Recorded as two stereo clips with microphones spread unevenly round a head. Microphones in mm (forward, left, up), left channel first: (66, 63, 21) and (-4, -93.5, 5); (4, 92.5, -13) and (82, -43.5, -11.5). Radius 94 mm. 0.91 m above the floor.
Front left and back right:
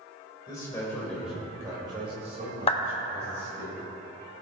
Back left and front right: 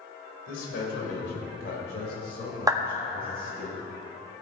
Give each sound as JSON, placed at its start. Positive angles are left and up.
{"t": 0.5, "sound": "a man speaking", "azimuth_deg": 135, "distance_m": 3.5}
{"t": 2.7, "sound": "a clap", "azimuth_deg": 10, "distance_m": 1.3}